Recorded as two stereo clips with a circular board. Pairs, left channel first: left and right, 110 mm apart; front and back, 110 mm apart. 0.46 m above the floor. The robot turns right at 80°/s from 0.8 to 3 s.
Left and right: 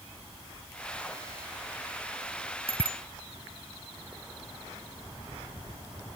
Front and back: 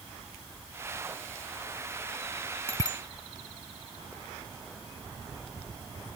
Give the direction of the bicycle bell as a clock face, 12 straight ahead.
2 o'clock.